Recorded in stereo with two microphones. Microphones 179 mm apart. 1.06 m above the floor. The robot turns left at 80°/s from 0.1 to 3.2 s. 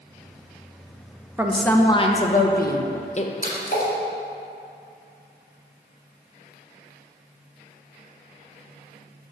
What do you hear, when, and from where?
1.4 s a woman speaking: 165° right, 0.6 m; by 3.3 s 50° left, 0.6 m
3.4 s a splash: 55° left (ahead or behind), 1.9 m